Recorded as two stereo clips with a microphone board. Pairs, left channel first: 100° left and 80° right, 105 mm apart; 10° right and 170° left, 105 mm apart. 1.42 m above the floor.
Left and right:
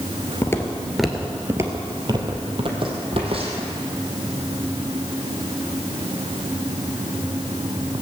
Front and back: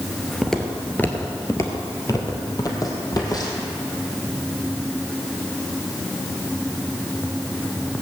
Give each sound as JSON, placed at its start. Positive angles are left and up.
{"t": 0.4, "sound": "footsteps", "azimuth_deg": 75, "distance_m": 1.5}